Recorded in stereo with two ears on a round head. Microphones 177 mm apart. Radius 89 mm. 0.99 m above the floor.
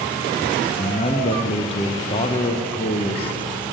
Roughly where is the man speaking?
Left.